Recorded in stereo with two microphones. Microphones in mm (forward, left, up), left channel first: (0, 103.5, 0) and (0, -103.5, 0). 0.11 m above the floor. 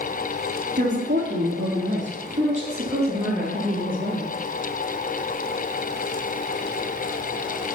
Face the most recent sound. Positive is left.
turn(degrees=-25)  # may be behind; listen again after turning